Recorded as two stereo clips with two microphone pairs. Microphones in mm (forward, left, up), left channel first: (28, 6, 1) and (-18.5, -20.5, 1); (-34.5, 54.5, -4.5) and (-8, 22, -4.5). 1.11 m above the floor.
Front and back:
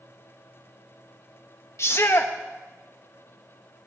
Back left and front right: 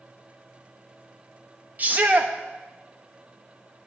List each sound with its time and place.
1.8 s a shout: straight ahead, 1.4 m